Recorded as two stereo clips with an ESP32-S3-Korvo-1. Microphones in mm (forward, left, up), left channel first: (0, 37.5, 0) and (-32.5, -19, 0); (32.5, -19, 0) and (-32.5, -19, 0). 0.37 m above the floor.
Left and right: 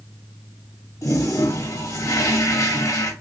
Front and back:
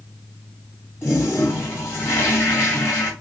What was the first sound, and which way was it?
A toilet flushing, 45° left.